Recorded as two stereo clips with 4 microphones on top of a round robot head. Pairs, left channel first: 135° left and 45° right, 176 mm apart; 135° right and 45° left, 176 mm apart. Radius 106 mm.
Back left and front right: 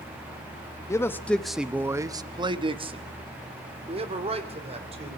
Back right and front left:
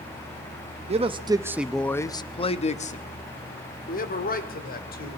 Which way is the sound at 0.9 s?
70° left.